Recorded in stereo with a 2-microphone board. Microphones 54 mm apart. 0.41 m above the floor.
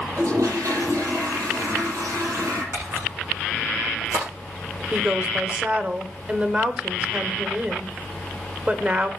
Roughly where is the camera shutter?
Right.